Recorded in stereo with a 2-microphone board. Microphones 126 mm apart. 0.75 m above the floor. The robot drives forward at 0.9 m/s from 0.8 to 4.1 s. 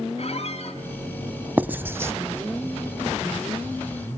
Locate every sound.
0.2 s a squeak: 55° left (ahead or behind), 3 m
1.6 s writing: 15° right (ahead or behind), 1.0 m; by 2.1 s 20° right (ahead or behind), 0.6 m